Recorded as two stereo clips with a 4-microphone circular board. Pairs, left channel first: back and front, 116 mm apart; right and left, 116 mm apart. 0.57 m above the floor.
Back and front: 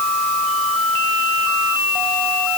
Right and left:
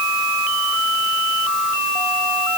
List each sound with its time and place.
Only background noise.